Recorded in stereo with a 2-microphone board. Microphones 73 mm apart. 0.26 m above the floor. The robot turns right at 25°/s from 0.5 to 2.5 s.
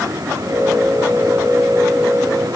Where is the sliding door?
I don't hear a sliding door.